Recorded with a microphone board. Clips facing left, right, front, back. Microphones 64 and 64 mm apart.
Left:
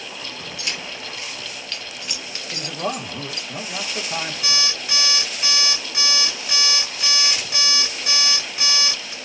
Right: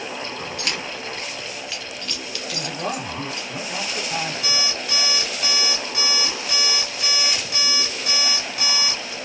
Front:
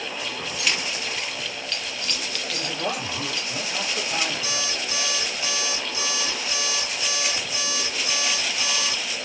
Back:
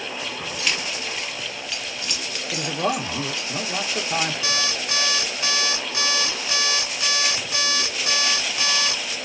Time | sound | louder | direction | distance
0.6 | keys jangling | even, even | 85° right | 1.0 m
2.5 | a man speaking | left 1 dB, back 5 dB | 170° left | 1.1 m
4.4 | an alarm clock | even, back 3 dB | 175° left | 1.8 m